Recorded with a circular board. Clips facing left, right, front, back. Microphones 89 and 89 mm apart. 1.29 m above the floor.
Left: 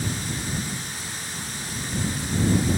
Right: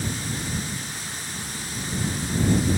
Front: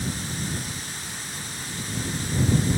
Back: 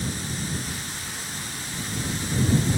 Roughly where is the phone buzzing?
No phone buzzing in this recording.